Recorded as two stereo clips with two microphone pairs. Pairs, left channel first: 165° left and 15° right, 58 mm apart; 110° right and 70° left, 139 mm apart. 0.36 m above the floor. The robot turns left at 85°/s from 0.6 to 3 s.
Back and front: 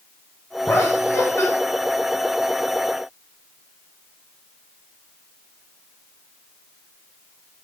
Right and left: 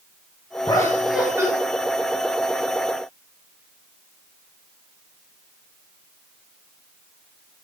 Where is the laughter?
160° right, 2.5 m; by 1.5 s 130° left, 2.5 m.